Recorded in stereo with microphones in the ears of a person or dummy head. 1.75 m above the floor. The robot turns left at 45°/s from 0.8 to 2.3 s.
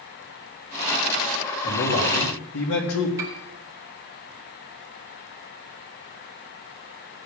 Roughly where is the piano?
Right.